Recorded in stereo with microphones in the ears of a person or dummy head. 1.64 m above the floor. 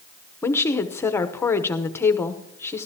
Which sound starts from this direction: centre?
A woman speaking, at 0.4 s.